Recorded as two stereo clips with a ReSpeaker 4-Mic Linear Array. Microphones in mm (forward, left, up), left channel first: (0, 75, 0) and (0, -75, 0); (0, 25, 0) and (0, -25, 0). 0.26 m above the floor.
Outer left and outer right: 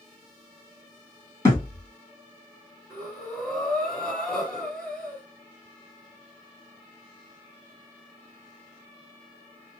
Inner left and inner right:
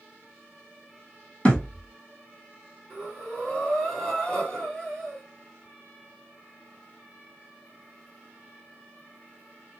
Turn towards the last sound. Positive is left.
turn(degrees=5)  # may be behind; listen again after turning